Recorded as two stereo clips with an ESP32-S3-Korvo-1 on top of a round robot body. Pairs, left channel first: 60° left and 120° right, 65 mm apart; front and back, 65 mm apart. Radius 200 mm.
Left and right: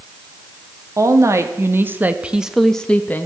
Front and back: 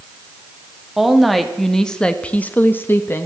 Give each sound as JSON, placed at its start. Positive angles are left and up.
{"t": 1.0, "sound": "a woman speaking", "azimuth_deg": -90, "distance_m": 2.0}